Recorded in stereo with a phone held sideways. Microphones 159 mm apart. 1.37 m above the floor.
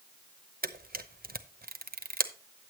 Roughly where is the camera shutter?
Right.